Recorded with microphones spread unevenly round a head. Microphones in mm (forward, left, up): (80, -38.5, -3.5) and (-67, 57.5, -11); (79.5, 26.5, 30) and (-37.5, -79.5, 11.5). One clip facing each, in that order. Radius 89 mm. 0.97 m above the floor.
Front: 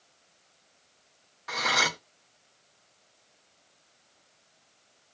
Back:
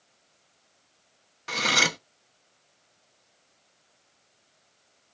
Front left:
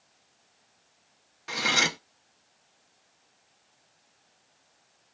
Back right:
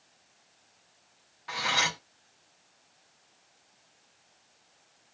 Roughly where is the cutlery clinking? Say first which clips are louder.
Back 2 dB, front left 2 dB; left.